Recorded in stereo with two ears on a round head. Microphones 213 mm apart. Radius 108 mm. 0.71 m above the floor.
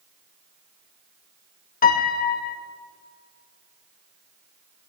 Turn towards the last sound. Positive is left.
turn(degrees=40)  # may be behind; listen again after turning